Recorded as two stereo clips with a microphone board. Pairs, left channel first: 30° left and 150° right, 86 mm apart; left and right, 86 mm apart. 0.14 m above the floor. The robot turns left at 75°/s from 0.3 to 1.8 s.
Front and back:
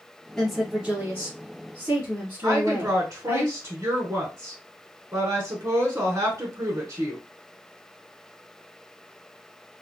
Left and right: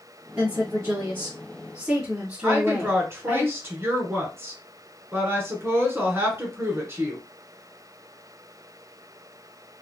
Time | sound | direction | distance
0.4 | a woman speaking | 50° right | 1.2 m
2.4 | a woman speaking | 130° right | 1.3 m